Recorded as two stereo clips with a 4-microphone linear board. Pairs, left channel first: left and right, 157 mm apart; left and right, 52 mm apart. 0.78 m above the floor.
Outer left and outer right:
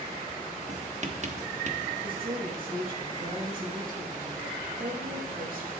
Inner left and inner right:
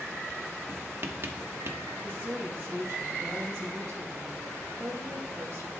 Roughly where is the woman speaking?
Right.